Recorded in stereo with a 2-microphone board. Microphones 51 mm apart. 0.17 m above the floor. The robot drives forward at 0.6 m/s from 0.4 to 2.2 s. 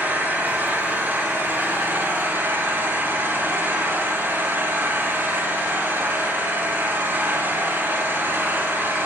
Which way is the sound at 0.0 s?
40° right (ahead or behind).